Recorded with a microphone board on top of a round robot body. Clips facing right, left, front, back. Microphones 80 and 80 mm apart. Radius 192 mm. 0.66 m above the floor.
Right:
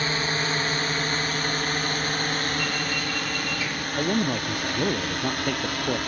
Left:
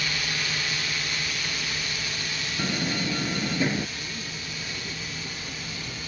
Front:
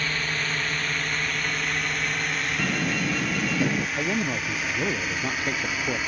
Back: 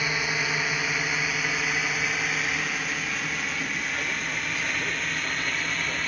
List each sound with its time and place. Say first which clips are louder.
0.0 s a drone: right 5 dB, back 1 dB; 110° right; by 6.1 s 85° right
2.6 s a door slam: even, front 4 dB; 30° left
4.0 s a man speaking: right 13 dB, front 4 dB; 60° right